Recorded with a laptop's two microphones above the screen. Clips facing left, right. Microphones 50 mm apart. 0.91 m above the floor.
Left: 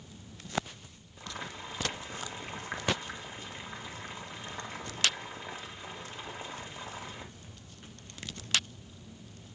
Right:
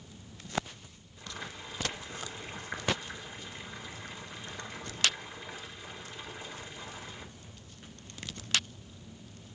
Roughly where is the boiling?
Left.